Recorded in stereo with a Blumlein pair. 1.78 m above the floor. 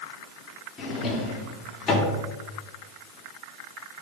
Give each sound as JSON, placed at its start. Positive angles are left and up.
{"t": 0.8, "sound": "a drawer", "azimuth_deg": 20, "distance_m": 3.0}